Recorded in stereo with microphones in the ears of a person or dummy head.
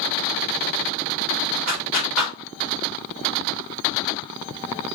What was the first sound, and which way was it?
A clap, 40° right (ahead or behind).